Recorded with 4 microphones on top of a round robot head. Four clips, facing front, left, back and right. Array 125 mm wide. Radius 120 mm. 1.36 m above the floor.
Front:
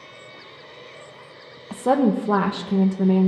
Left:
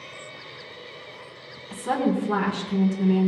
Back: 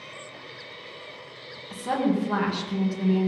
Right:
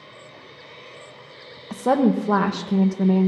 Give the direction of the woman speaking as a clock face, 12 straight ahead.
2 o'clock.